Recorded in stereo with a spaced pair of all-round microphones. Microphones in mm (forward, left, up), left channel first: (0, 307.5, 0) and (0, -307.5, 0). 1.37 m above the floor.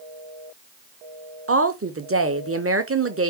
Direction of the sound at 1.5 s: 25° right (ahead or behind).